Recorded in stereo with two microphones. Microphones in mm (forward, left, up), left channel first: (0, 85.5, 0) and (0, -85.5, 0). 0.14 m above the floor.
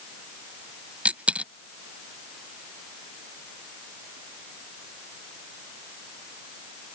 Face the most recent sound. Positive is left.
turn(degrees=-10)  # may be behind; listen again after turning